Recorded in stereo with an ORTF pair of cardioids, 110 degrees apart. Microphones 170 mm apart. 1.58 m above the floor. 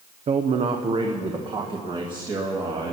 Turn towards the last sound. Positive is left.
turn(degrees=-25)